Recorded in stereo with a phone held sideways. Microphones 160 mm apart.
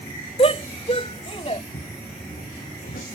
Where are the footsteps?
75° left (ahead or behind); by 3.0 s 70° left (ahead or behind).